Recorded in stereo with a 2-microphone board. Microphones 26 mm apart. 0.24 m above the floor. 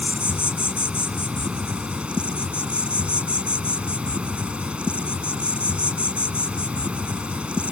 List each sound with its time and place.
0.0 s an insect: 60° right (ahead or behind)